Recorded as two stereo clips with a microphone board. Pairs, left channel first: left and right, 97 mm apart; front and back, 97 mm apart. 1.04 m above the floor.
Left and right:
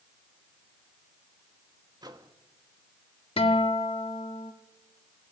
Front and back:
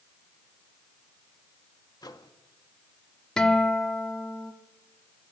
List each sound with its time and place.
2.0 s a microwave: 45° right, 1.6 m
3.4 s a guitar: 80° left, 1.7 m